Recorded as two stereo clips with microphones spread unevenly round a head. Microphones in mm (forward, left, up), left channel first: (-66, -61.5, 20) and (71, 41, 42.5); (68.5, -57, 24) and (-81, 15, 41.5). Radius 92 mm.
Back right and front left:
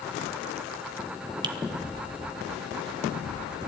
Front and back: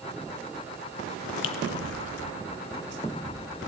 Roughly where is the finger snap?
Ahead right.